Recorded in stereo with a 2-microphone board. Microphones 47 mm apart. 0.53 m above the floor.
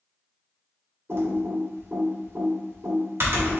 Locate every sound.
1.1 s typing on a keyboard: 60° right (ahead or behind), 1.6 m